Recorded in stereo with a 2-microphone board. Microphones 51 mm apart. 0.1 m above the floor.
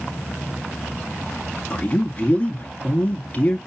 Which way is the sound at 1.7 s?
30° left (ahead or behind).